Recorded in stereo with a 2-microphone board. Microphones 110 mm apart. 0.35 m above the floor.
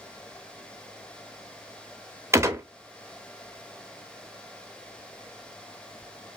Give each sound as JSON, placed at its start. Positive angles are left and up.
{"t": 2.3, "sound": "a gunshot", "side_deg": -25, "distance_m": 0.6}